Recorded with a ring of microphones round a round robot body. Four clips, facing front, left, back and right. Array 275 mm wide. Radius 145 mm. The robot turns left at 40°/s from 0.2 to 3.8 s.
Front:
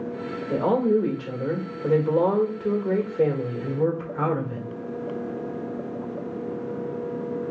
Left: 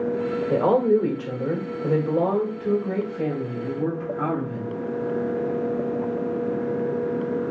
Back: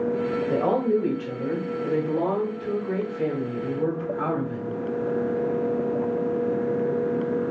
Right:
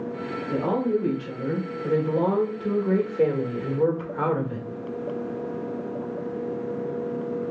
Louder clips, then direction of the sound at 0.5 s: Left 5 dB, front 3 dB; 65° left.